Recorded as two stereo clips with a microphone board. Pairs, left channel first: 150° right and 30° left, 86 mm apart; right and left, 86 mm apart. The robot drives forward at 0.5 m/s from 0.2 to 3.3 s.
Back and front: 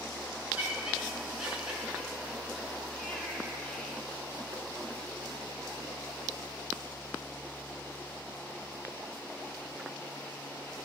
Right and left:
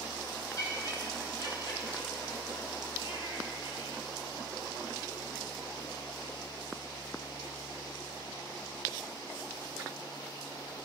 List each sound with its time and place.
0.6 s laughter: 45° right, 4 m; by 4.0 s 65° right, 3 m